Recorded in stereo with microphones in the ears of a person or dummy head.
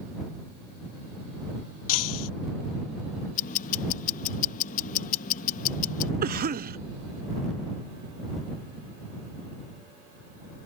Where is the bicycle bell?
No bicycle bell in this recording.